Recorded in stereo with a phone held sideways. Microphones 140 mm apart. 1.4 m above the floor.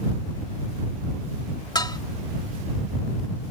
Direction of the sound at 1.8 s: 30° left (ahead or behind).